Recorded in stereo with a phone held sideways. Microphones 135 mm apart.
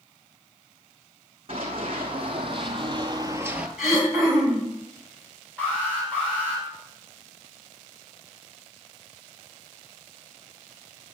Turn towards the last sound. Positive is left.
turn(degrees=10)  # may be behind; listen again after turning